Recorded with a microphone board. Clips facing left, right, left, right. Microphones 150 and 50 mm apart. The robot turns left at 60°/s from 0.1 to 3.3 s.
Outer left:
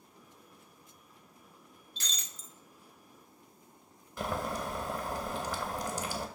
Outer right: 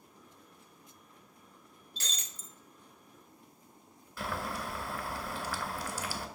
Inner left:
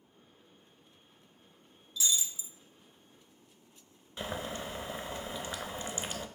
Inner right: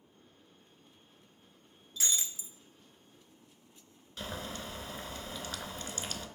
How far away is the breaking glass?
About 0.5 m.